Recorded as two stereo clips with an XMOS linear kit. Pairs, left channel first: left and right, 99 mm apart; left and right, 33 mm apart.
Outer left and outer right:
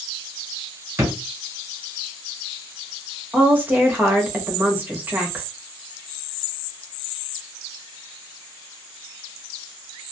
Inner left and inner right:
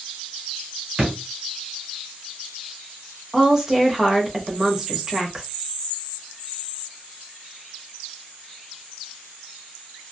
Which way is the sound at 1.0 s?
30° right (ahead or behind).